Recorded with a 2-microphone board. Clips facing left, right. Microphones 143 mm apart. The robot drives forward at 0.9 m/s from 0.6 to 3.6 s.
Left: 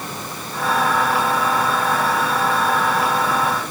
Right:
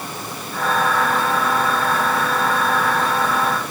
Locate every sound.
Only background noise.